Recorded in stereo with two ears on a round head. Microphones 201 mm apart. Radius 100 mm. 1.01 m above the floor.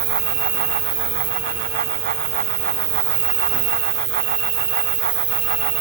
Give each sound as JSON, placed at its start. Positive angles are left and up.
{"t": 0.0, "sound": "an insect", "side_deg": -45, "distance_m": 2.5}